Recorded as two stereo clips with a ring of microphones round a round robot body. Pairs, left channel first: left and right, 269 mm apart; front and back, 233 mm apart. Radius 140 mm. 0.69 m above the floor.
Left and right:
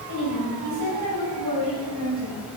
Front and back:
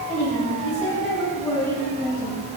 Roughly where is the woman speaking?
Right.